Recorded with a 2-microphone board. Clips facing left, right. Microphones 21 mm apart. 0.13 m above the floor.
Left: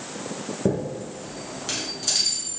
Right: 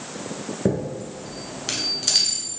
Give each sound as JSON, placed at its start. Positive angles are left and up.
{"t": 0.7, "sound": "a chime", "side_deg": -40, "distance_m": 1.2}